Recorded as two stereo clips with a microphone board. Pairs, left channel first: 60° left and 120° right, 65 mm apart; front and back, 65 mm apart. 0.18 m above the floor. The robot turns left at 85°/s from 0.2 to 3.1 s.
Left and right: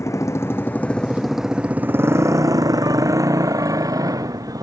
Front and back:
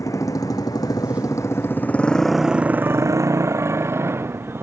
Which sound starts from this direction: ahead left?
A motorcycle, at 0.0 s.